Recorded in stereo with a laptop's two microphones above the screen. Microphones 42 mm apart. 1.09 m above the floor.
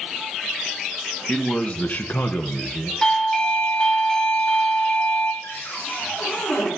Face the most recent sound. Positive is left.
turn(degrees=70)  # may be behind; listen again after turning